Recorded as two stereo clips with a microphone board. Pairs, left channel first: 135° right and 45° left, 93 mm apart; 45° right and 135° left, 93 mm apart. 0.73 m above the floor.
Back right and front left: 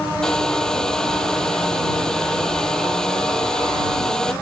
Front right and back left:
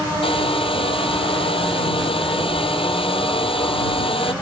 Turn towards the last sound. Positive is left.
turn(degrees=-50)